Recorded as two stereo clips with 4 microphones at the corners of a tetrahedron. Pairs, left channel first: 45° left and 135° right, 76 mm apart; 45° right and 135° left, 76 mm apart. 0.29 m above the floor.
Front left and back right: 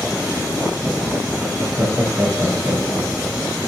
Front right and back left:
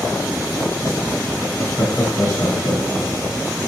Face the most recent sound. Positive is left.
turn(degrees=-90)